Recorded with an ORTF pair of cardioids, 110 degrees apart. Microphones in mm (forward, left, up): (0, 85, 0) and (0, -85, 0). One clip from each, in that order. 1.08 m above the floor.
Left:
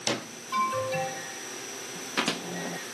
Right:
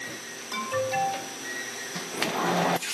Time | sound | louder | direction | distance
0.5 | an alarm | even | 60° right | 3.5 m